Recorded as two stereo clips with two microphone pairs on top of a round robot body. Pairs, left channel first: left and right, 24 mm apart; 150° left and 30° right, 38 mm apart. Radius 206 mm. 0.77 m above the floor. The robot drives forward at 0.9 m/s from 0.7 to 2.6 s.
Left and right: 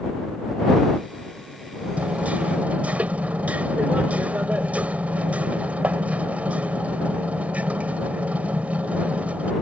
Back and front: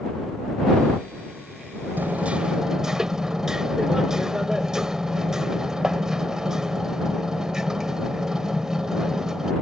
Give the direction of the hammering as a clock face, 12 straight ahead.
2 o'clock.